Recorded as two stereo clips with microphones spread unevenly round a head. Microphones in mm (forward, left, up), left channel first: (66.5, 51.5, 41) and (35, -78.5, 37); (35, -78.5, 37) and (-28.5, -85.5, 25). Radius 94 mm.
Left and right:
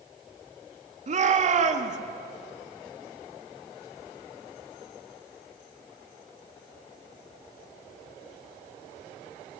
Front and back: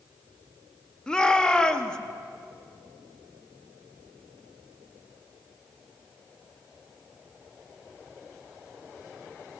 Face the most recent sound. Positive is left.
turn(degrees=-70)